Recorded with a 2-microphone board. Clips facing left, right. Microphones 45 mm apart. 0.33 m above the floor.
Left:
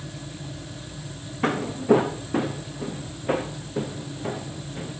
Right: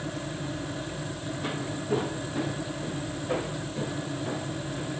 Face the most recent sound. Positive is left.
turn(degrees=55)  # may be behind; listen again after turning